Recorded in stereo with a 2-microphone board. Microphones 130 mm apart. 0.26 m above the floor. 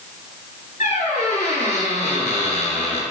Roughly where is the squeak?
Left.